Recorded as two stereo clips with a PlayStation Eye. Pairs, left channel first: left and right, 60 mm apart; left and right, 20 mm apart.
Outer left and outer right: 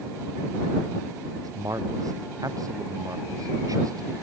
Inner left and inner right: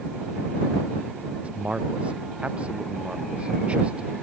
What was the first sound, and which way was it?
A man speaking, 75° right (ahead or behind).